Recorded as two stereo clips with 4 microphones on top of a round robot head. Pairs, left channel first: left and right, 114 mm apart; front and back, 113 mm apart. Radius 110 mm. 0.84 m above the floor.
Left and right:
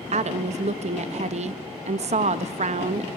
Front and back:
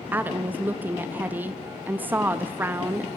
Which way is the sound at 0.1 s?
105° right.